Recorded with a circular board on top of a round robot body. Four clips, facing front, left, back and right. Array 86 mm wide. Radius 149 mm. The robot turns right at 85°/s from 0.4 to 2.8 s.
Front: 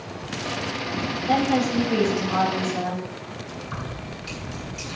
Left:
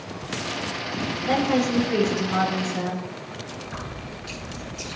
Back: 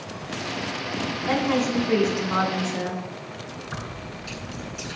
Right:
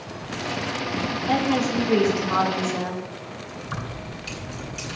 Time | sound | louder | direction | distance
1.3 | a woman speaking | left 1 dB, front 2 dB | 165° left | 8.5 m
3.6 | keys jangling | right 1 dB, front 1 dB | 70° right | 7.5 m